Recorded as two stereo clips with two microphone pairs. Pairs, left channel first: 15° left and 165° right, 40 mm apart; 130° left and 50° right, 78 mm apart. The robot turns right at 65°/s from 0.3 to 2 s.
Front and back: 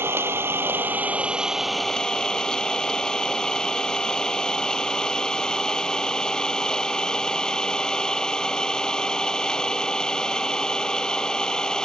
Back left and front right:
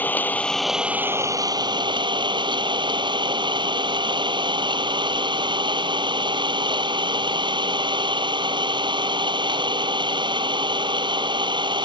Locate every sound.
0.0 s an engine running: 165° right; by 11.8 s 55° right